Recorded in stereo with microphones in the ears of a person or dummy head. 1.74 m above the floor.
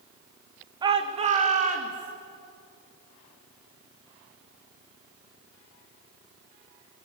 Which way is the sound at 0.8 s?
25° right (ahead or behind).